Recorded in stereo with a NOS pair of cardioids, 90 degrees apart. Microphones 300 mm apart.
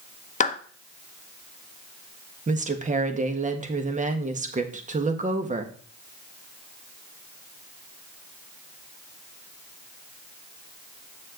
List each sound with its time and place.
0.4 s a clap: 25° left, 1.0 m
2.5 s a woman speaking: 25° right, 1.5 m